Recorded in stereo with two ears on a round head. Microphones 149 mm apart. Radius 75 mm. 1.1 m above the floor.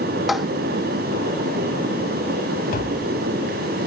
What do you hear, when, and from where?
0.3 s tapping: centre (ahead or behind)
2.7 s tapping: 55° left (ahead or behind)